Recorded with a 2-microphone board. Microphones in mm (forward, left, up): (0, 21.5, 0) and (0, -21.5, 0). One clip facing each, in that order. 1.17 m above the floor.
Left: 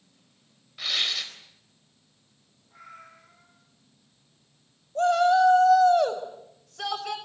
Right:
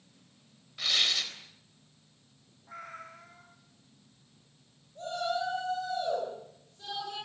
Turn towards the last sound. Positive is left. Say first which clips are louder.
# left 13 dB
turn(degrees=75)  # may be behind; listen again after turning